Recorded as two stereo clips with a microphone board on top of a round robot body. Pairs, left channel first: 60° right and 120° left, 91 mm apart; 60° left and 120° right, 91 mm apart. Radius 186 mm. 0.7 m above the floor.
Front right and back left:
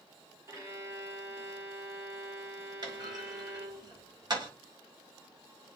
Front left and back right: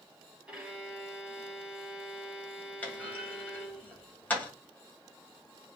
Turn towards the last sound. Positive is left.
turn(degrees=125)